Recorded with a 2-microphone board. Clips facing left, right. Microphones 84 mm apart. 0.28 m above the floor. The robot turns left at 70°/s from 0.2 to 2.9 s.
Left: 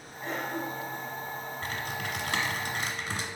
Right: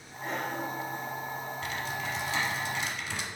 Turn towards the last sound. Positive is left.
turn(degrees=40)